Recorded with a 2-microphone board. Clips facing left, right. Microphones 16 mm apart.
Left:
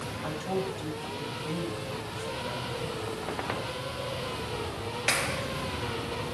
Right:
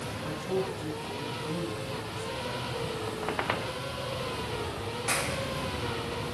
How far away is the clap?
About 2.5 m.